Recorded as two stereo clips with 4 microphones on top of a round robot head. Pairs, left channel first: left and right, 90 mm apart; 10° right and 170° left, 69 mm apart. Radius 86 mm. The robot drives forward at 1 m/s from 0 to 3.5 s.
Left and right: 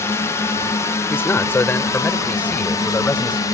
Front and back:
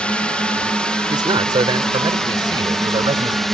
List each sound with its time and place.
0.0 s a drone: 55° left; by 3.5 s 75° left
1.1 s a man speaking: 155° left; by 3.5 s 165° left